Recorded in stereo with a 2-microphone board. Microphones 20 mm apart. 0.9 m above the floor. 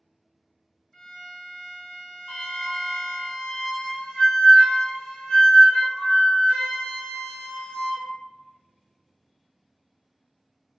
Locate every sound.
0.9 s a violin: 20° left (ahead or behind), 1.9 m
2.3 s a flute: 50° left (ahead or behind), 0.6 m